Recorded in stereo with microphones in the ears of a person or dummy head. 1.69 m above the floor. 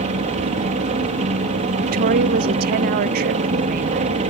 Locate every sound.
0.0 s a helicopter: 35° right (ahead or behind)
1.8 s a woman speaking: 50° right (ahead or behind)